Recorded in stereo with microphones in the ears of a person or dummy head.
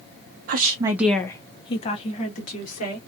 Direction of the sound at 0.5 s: 55° right (ahead or behind).